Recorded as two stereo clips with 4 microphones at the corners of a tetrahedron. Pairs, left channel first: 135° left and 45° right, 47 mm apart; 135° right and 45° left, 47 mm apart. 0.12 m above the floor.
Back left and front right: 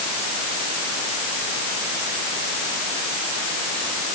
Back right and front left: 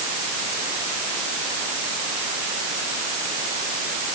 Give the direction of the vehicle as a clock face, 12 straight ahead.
No vehicle in this recording.